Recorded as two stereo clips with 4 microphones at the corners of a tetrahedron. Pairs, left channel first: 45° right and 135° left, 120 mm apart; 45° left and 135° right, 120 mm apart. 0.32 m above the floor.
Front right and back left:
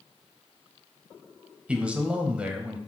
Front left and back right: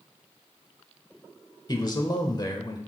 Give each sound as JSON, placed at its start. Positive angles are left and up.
{"t": 1.7, "sound": "a man speaking", "azimuth_deg": 65, "distance_m": 1.1}